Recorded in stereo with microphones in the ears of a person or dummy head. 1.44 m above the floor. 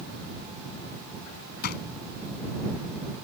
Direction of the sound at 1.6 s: 50° left (ahead or behind).